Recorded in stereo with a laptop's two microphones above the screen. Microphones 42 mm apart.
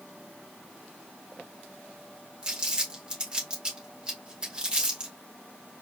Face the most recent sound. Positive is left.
turn(degrees=-20)  # may be behind; listen again after turning